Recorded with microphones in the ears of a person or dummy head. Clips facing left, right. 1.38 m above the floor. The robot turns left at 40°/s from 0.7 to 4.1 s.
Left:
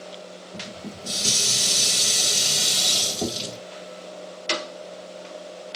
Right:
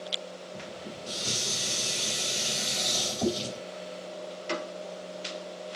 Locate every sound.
0.5 s dishes clattering: 130° left, 4 m; by 3.6 s 15° left, 4 m